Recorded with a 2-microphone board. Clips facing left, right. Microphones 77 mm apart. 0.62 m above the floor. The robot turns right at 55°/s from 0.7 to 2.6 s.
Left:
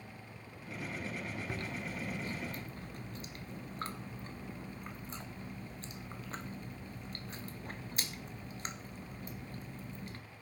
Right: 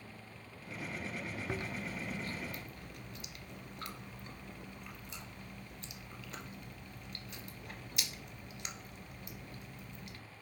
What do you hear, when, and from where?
1.5 s chewing: 25° right (ahead or behind), 1.5 m; by 10.2 s 35° left (ahead or behind), 1.5 m